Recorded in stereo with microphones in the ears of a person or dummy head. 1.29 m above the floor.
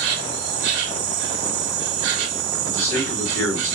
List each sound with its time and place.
0.0 s an insect: 60° right (ahead or behind), 0.7 m
2.6 s a man speaking: 15° left (ahead or behind), 1.9 m